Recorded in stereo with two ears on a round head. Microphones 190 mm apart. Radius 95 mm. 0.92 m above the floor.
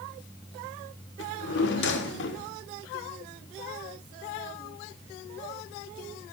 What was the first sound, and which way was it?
A drawer, 60° left (ahead or behind).